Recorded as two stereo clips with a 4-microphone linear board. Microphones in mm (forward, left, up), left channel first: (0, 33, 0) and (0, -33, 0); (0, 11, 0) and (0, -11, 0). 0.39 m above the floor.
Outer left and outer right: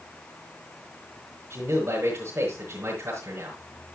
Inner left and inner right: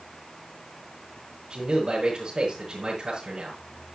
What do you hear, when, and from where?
1.5 s a man speaking: 35° right (ahead or behind), 5 m